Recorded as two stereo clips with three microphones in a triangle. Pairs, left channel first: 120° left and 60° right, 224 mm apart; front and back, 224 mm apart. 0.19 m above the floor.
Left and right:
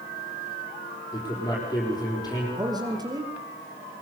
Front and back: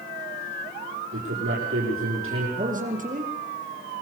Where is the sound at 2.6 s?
130° right, 3.5 m.